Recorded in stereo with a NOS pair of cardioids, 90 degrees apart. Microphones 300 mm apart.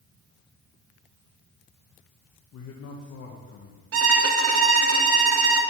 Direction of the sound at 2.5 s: 55° left.